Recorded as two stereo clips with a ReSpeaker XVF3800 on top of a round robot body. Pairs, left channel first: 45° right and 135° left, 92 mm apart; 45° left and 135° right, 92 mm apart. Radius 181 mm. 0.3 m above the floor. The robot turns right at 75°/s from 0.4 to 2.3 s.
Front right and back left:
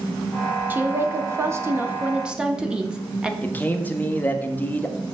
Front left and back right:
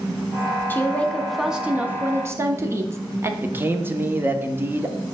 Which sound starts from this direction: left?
A woman speaking, at 0.7 s.